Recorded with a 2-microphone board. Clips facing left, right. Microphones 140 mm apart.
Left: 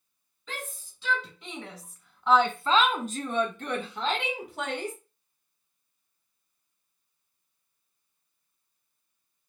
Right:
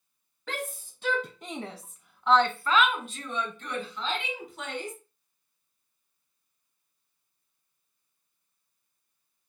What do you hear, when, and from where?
0.5 s a shout: 65° right (ahead or behind), 1.2 m; by 5.0 s 70° left (ahead or behind), 1.7 m